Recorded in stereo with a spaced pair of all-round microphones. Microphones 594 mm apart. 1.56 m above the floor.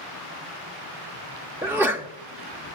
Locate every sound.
1.6 s a sneeze: 5° right (ahead or behind), 0.5 m